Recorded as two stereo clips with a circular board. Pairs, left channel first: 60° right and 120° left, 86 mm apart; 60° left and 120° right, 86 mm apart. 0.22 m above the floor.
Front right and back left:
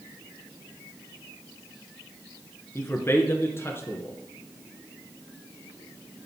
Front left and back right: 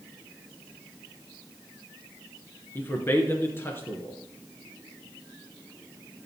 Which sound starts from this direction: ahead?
A man speaking, at 2.8 s.